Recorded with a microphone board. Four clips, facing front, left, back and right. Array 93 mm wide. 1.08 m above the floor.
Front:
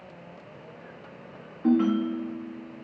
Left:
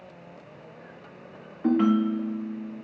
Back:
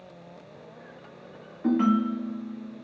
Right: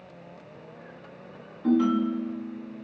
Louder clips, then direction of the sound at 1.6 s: Left 1 dB, even; 105° left.